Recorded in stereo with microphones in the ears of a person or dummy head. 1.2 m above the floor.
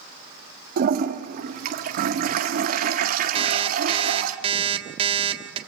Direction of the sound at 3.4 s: 35° right (ahead or behind).